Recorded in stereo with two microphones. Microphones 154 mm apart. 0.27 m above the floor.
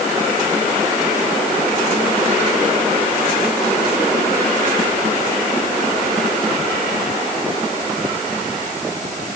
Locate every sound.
Only background noise.